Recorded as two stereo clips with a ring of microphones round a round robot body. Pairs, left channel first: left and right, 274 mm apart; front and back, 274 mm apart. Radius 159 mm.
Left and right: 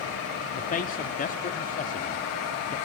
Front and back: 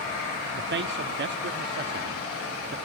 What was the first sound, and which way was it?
A man speaking, 145° left.